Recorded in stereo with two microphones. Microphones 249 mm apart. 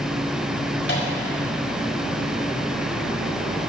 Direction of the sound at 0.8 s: 45° left (ahead or behind).